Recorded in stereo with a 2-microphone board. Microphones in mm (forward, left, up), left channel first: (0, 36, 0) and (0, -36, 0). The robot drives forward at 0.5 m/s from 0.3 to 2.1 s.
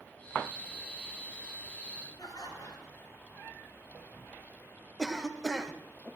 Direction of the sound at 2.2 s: 75° left (ahead or behind).